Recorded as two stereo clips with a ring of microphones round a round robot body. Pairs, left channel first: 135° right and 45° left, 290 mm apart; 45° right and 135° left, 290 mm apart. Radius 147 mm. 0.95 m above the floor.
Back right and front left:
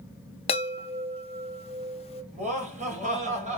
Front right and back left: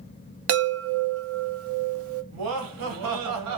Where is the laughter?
110° left, 1.6 m.